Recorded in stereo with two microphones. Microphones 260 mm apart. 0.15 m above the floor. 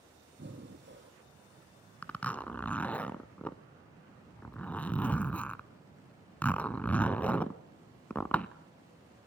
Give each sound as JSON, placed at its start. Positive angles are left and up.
{"t": 0.4, "sound": "breathing", "side_deg": -45, "distance_m": 3.0}
{"t": 2.0, "sound": "a zipper", "side_deg": 5, "distance_m": 0.7}